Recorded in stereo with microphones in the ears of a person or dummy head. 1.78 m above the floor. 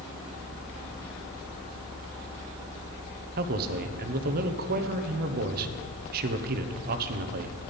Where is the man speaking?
55° right (ahead or behind), 1.0 m.